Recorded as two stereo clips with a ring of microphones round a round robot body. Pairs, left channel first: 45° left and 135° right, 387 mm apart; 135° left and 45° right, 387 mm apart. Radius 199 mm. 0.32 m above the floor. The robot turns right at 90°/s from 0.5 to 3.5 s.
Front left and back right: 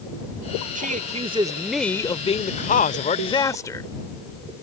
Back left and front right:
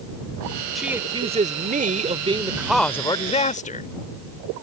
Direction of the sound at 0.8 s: 135° right.